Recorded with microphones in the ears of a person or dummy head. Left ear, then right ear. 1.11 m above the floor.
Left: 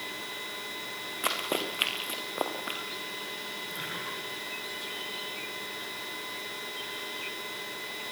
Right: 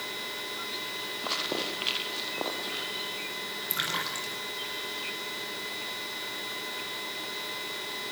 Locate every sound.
1.2 s running footsteps: 55° left (ahead or behind), 6.5 m; by 2.8 s 45° left (ahead or behind), 7 m
3.7 s a splash: 60° right (ahead or behind), 7.5 m